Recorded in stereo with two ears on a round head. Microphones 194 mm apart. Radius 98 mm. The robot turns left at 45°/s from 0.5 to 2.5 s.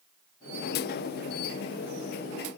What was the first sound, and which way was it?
Only background noise.